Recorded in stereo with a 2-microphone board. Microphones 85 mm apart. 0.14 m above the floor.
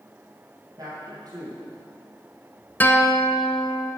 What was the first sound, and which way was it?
A man speaking, 55° right (ahead or behind).